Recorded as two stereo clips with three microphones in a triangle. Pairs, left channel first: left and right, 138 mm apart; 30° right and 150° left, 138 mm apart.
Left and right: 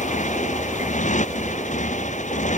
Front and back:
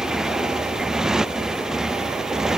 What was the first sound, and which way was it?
A motorcycle, 65° left.